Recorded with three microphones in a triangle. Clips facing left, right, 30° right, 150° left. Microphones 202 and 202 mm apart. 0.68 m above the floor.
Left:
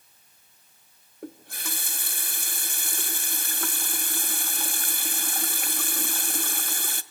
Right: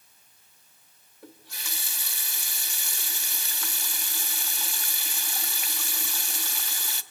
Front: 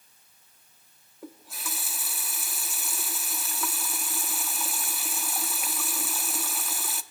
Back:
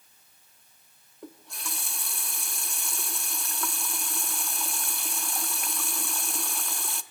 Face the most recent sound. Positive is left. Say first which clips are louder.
# left 9 dB, front 1 dB
turn(degrees=55)